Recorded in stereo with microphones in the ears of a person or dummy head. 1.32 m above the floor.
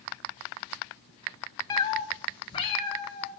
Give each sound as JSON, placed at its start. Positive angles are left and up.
{"t": 1.7, "sound": "a cat meowing", "side_deg": 20, "distance_m": 0.6}